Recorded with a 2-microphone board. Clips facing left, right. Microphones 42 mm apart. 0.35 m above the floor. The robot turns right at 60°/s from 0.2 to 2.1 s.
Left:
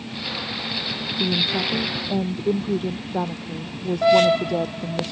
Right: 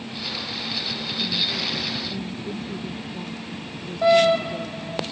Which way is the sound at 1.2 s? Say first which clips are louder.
Left 4 dB; 65° left.